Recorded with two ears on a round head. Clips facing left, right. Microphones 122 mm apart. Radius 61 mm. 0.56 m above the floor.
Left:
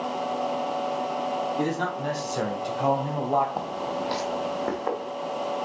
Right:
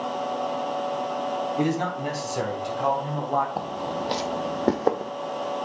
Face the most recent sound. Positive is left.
turn(degrees=-50)  # may be behind; listen again after turning